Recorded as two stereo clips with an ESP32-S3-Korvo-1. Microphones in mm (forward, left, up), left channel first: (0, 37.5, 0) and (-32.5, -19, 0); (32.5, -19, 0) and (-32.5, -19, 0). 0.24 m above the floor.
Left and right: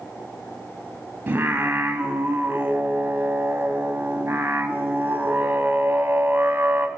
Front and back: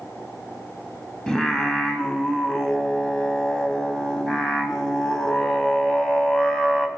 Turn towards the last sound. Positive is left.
turn(degrees=-75)